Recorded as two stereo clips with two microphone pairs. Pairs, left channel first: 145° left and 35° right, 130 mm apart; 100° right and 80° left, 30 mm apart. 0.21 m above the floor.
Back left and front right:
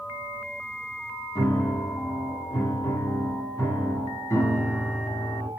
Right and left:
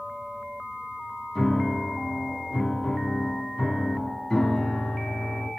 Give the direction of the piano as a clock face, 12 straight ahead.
5 o'clock.